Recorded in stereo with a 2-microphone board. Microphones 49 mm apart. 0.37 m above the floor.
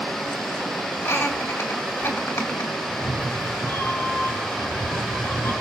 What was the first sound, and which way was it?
Laughter, 60° left (ahead or behind).